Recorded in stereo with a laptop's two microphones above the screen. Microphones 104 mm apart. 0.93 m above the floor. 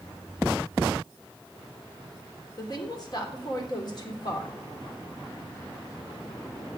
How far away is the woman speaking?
About 2.5 m.